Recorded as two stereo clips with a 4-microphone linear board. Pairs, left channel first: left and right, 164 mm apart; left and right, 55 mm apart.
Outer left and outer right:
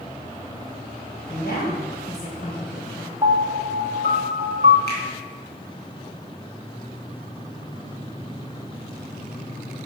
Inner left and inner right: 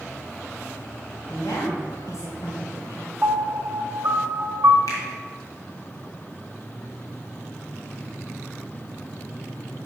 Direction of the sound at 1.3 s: 75° left (ahead or behind).